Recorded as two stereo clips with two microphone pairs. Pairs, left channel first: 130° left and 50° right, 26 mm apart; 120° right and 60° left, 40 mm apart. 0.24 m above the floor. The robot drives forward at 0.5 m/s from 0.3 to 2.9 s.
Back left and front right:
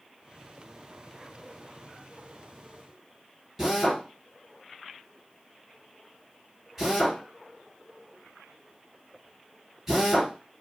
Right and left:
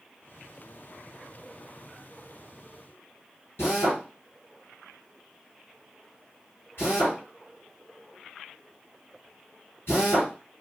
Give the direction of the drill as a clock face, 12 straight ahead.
4 o'clock.